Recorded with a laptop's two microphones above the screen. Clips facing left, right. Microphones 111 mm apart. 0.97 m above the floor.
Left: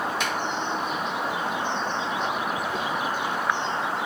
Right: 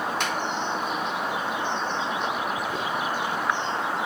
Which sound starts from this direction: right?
A finger snap, at 0.2 s.